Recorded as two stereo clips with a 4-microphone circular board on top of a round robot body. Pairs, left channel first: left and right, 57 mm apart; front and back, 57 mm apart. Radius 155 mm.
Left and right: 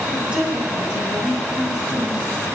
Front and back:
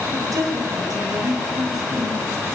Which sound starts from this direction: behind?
A woman speaking, at 0.1 s.